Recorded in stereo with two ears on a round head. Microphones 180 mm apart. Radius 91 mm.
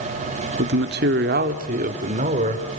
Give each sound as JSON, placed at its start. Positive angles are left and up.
{"t": 0.6, "sound": "a man speaking", "side_deg": -55, "distance_m": 1.3}